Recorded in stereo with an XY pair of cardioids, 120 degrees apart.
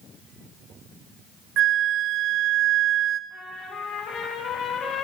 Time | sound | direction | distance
1.6 | a flute | 60° right | 0.5 m
3.3 | a trumpet | 60° left | 2.5 m